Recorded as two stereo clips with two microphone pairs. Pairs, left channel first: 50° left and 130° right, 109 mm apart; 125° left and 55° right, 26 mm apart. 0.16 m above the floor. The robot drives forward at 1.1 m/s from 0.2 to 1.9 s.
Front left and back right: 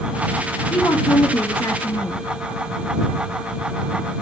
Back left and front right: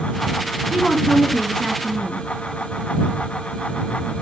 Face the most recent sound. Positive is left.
turn(degrees=95)